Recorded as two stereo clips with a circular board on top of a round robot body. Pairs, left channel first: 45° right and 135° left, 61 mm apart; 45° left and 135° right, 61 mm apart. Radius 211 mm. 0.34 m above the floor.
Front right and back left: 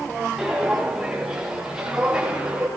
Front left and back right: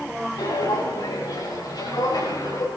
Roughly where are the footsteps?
Ahead left.